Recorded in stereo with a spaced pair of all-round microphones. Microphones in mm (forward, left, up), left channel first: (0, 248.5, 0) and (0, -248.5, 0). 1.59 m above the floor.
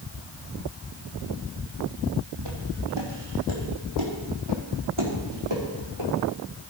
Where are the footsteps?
55° right (ahead or behind), 4 m; by 6.1 s 75° right (ahead or behind), 7 m.